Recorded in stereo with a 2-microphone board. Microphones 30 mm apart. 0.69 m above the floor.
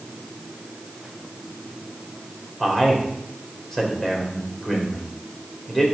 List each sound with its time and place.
2.6 s a man speaking: 15° left (ahead or behind), 2.5 m